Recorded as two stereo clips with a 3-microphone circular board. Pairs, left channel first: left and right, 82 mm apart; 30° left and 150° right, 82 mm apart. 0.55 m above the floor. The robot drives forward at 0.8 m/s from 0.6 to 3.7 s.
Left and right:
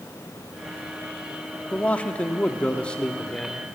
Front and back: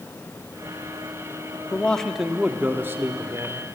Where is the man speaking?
55° left, 0.9 m; by 3.8 s 170° left, 1.6 m.